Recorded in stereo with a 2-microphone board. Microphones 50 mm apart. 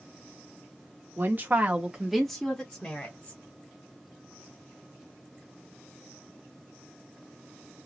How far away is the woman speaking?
About 1.0 m.